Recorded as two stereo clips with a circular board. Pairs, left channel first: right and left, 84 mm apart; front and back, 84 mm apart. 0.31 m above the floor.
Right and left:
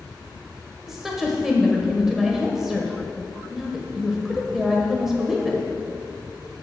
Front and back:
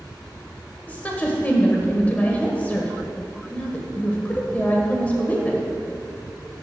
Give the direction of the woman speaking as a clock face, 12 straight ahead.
11 o'clock.